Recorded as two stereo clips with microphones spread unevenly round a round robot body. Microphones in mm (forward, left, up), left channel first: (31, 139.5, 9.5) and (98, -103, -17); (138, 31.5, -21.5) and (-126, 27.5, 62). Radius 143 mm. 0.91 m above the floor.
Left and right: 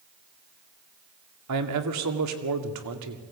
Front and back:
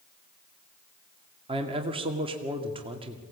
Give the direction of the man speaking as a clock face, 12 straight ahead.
3 o'clock.